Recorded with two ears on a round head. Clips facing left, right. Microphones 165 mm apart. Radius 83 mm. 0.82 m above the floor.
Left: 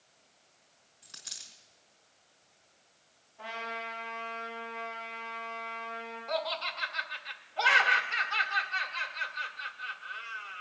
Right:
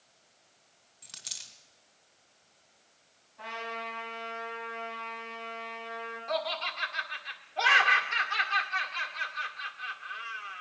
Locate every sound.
1.0 s a dropped coin: 65° right (ahead or behind), 2.5 m
3.4 s a trumpet: 65° right (ahead or behind), 7 m
6.3 s laughter: 30° right (ahead or behind), 1.8 m